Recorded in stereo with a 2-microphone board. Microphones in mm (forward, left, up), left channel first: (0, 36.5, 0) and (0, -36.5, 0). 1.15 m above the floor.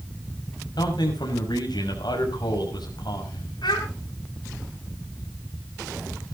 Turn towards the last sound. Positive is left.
turn(degrees=80)